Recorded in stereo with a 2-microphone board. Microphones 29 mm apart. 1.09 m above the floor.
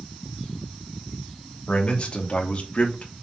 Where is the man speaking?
40° left (ahead or behind), 3 m; by 3.1 s 50° left (ahead or behind), 2 m.